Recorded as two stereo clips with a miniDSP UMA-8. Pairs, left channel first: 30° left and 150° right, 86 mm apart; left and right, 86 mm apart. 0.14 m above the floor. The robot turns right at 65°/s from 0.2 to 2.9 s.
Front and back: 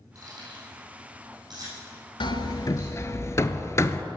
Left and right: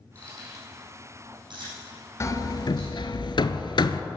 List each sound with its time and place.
0.1 s keys jangling: 160° left, 5 m; by 2.9 s 25° right, 5 m
2.2 s hammering: 35° left, 0.6 m; by 4.0 s 85° left, 0.6 m